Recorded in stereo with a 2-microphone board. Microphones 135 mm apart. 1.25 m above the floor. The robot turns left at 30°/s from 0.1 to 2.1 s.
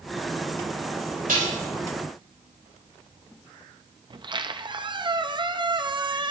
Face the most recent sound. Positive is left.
turn(degrees=-35)  # may be behind; listen again after turning